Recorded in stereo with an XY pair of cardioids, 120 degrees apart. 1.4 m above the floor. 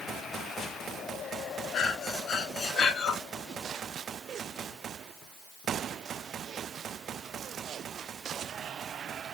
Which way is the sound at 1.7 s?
50° left.